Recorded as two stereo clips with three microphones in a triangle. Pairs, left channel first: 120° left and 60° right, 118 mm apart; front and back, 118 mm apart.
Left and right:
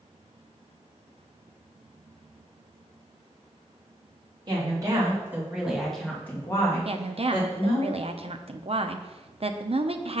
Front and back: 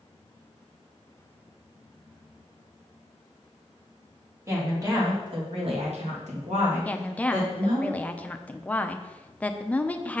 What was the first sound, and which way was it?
A woman speaking, 110° right.